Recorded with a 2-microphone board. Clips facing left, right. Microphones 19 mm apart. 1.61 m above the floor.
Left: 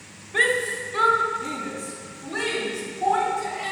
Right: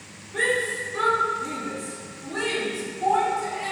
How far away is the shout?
About 1.4 m.